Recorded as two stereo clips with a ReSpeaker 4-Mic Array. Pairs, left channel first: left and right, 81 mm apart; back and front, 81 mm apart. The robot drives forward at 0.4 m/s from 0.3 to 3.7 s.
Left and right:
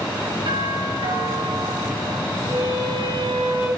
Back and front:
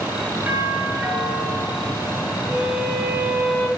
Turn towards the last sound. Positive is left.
turn(degrees=-80)